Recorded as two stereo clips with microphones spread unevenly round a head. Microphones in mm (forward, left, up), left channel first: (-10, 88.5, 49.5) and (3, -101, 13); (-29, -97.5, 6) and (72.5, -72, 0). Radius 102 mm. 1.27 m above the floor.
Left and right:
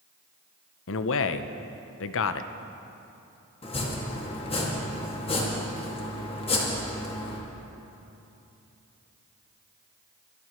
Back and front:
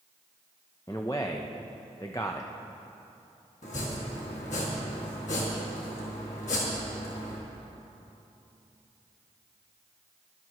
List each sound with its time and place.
0.9 s a man speaking: 115° left, 0.7 m
3.6 s chopping: 155° left, 2 m